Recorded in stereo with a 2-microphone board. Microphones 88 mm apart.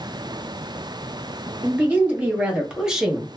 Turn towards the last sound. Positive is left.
turn(degrees=5)  # may be behind; listen again after turning